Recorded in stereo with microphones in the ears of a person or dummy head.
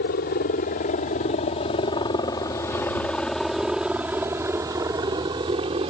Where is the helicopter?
50° left (ahead or behind); by 5.9 s 30° right (ahead or behind).